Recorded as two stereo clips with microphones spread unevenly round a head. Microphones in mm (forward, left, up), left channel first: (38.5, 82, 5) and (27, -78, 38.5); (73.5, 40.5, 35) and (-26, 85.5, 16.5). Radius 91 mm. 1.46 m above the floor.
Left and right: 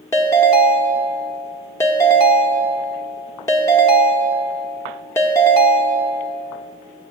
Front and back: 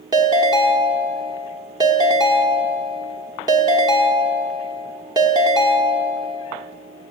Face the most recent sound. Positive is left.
turn(degrees=165)